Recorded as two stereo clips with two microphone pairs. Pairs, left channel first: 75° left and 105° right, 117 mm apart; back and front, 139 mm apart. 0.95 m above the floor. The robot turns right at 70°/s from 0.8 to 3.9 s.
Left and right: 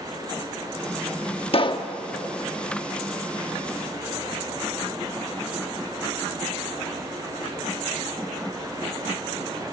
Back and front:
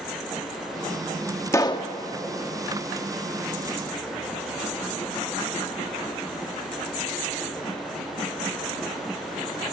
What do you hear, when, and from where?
1.5 s a pop: 110° left, 1.0 m; by 1.9 s 140° left, 1.0 m